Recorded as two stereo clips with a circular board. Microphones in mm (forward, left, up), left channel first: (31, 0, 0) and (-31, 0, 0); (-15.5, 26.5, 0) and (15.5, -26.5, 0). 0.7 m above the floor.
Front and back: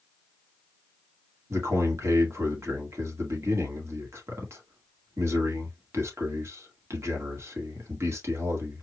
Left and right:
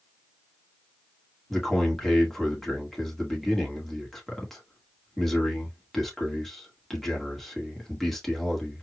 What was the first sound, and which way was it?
A man speaking, 155° right.